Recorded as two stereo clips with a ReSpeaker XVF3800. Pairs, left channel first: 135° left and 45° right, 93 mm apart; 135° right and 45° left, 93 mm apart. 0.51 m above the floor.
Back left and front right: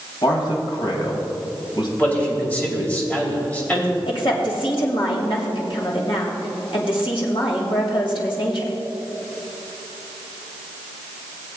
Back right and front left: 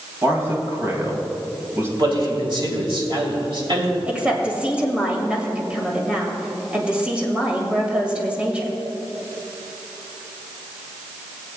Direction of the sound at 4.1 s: 120° left.